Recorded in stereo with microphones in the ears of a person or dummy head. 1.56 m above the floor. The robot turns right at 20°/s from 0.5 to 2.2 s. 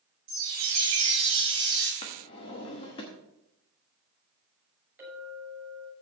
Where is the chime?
45° right (ahead or behind), 3 m; by 1.9 s 20° right (ahead or behind), 3 m.